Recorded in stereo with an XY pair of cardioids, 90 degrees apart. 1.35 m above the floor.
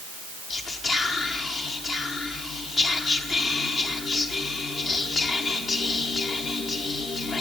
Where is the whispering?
55° left, 1.1 m.